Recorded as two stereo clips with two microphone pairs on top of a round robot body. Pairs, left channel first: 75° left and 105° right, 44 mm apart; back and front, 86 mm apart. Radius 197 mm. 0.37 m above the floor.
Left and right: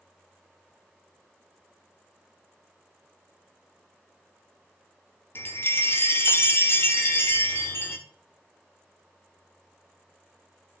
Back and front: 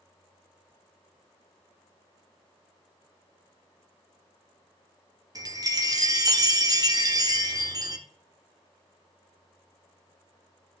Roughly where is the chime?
Ahead left.